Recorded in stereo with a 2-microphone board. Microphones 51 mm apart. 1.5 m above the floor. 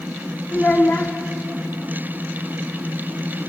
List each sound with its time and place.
0.5 s a child speaking: 35° left (ahead or behind), 1.6 m